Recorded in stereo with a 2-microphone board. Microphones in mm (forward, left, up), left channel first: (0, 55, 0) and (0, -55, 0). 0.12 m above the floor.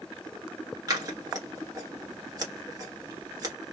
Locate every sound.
0.9 s scissors: 35° right (ahead or behind), 1.3 m